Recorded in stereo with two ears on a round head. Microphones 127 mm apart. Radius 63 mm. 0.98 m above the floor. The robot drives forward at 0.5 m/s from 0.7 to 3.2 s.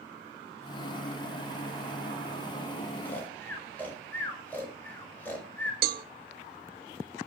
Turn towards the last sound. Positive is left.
turn(degrees=-75)  # may be behind; listen again after turning